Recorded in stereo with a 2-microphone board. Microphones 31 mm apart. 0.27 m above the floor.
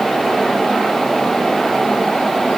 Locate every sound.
Only background noise.